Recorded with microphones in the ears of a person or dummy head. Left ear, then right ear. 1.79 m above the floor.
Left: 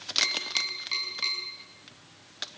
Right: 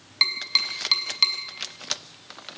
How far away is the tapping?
About 6 m.